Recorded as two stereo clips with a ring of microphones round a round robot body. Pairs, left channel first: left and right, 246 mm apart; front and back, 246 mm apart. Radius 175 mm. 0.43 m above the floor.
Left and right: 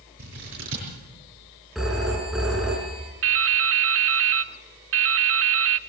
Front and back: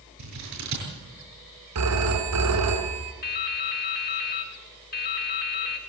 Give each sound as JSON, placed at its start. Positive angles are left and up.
{"t": 0.2, "sound": "scissors", "azimuth_deg": -145, "distance_m": 7.0}
{"t": 1.8, "sound": "a phone ringing", "azimuth_deg": 180, "distance_m": 3.0}
{"t": 3.2, "sound": "dripping", "azimuth_deg": -60, "distance_m": 0.8}